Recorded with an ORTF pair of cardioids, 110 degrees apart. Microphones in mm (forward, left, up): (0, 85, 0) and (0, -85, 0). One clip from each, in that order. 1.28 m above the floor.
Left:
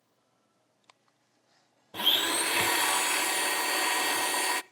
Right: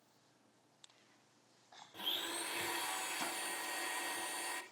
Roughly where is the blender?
Ahead left.